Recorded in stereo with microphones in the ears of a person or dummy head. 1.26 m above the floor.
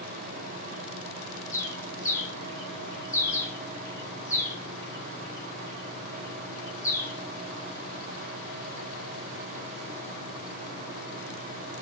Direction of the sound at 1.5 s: 25° left (ahead or behind).